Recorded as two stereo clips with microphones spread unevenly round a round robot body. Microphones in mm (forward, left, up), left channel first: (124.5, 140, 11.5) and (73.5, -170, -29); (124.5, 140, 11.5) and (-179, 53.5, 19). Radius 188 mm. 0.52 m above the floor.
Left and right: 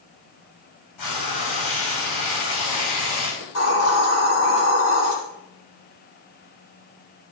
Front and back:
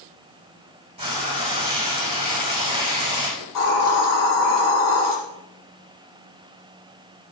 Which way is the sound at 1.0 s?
125° left.